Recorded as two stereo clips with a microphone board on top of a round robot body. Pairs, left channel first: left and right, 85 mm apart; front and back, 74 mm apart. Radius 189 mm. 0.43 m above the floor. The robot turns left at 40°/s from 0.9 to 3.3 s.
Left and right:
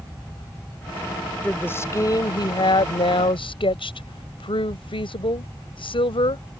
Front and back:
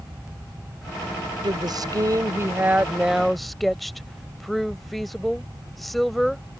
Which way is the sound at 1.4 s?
165° left.